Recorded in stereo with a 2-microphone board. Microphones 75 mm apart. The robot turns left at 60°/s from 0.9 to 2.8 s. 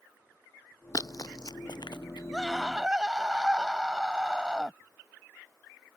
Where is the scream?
Centre (ahead or behind); by 4.8 s 10° right (ahead or behind).